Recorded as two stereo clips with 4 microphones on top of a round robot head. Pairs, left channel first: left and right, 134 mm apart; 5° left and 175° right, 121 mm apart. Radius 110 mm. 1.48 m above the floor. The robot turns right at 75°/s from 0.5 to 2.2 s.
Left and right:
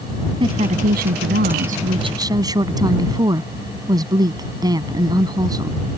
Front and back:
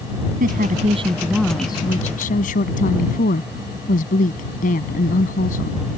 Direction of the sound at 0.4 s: 155° right.